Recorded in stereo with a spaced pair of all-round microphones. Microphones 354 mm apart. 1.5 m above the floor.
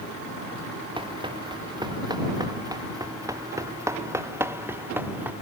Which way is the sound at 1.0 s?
15° right (ahead or behind).